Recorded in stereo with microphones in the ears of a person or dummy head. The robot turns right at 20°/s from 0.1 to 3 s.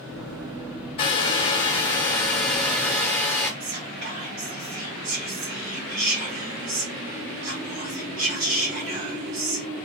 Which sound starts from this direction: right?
Whispering, at 3.6 s.